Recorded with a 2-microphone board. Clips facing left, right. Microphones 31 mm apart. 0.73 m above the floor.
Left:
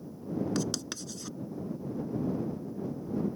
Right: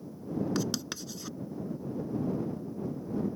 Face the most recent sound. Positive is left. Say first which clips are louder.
# even
turn(degrees=-5)  # may be behind; listen again after turning